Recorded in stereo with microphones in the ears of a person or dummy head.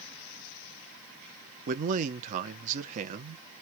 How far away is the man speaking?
About 0.8 m.